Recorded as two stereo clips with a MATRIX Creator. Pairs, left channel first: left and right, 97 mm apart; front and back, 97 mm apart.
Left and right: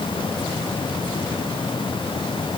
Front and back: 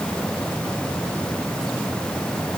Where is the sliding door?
No sliding door in this recording.